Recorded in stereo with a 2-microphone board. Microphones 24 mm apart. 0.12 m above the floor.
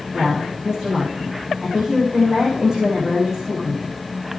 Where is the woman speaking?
35° right (ahead or behind), 8.5 m.